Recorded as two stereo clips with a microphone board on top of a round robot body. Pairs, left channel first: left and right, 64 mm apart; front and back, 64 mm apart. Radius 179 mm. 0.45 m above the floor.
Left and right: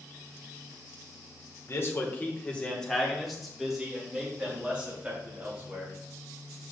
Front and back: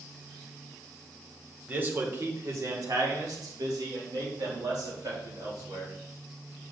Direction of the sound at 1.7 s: 125° left.